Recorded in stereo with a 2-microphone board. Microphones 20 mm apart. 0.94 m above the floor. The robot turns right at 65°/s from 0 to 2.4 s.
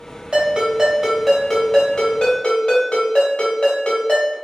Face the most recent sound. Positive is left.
turn(degrees=80)